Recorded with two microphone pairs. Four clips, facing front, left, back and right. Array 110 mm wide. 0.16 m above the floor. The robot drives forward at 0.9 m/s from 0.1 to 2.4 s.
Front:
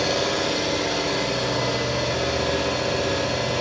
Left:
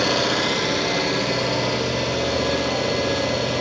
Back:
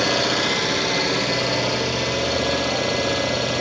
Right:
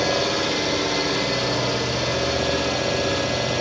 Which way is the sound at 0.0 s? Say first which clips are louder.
Left 1 dB, back 2 dB; 130° left.